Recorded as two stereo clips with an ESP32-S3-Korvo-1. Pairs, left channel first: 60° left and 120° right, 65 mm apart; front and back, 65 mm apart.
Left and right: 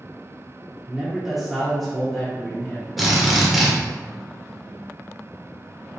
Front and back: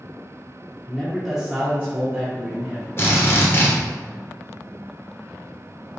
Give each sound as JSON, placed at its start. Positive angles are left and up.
{"t": 0.9, "sound": "a man speaking", "azimuth_deg": -65, "distance_m": 1.1}
{"t": 3.0, "sound": "a drill", "azimuth_deg": -35, "distance_m": 1.1}